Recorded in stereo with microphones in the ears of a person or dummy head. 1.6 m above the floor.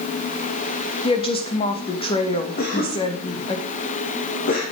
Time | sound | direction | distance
1.0 | a woman speaking | 30° left (ahead or behind) | 3 m
2.6 | a cough | 50° left (ahead or behind) | 2.5 m